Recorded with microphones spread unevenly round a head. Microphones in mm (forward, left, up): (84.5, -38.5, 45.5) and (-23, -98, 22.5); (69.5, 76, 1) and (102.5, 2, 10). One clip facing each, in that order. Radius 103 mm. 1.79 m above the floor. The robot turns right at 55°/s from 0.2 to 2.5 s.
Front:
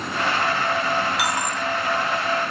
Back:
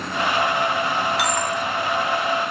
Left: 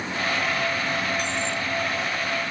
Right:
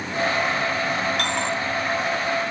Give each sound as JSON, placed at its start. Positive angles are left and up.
{"t": 1.2, "sound": "a dropped coin", "azimuth_deg": -60}